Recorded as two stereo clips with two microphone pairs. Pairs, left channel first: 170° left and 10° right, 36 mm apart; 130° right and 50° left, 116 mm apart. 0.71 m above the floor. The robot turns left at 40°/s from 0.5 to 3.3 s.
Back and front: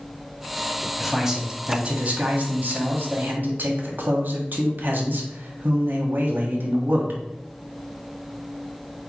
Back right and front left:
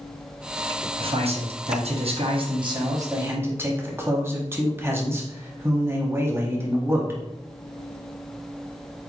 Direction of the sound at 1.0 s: 75° left.